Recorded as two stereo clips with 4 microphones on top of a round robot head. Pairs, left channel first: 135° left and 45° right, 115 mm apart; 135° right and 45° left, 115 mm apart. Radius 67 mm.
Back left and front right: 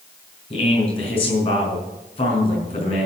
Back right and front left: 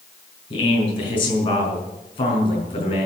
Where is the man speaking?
Straight behind, 5 m.